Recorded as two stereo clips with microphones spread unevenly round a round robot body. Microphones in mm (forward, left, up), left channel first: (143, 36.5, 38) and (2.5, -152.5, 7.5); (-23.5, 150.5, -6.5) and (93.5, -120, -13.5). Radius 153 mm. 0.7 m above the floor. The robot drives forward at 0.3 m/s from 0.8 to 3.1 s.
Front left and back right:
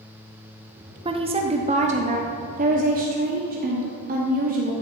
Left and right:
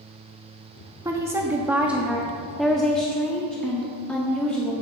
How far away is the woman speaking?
About 0.9 m.